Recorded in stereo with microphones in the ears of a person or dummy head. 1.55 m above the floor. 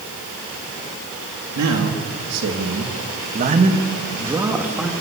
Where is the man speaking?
85° right, 3.5 m; by 4.9 s 5° right (ahead or behind), 3.5 m.